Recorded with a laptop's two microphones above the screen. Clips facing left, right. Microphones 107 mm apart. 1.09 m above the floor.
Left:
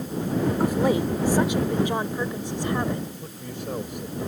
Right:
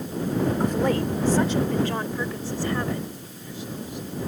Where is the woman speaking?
10° left (ahead or behind); by 3.1 s 20° left (ahead or behind).